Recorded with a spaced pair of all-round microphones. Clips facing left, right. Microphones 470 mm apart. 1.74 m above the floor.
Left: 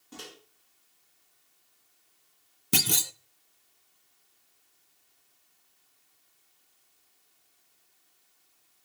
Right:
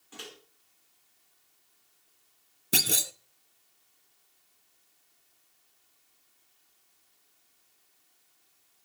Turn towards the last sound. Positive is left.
turn(degrees=20)  # may be behind; listen again after turning